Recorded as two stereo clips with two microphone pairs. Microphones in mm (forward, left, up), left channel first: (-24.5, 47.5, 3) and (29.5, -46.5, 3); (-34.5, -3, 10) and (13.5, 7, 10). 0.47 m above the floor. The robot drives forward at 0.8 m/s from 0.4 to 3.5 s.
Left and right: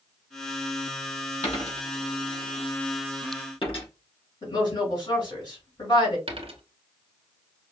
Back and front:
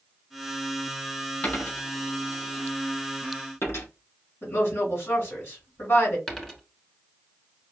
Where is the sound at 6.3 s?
90° right, 1.2 m.